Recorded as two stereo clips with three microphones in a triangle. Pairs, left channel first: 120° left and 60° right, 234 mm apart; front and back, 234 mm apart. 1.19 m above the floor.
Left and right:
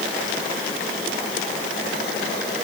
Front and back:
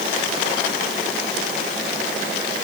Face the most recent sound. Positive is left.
No sound to turn to.